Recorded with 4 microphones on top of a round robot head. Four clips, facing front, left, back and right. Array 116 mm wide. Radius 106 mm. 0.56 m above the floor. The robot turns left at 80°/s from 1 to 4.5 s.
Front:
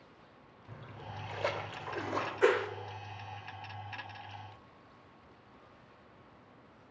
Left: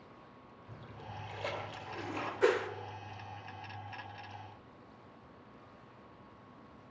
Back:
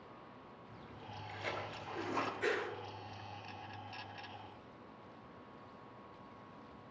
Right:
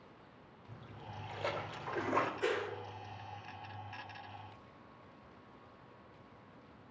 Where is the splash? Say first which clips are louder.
Left 2 dB, front 6 dB; 30° left, 2 m; by 2.3 s 75° right, 2 m.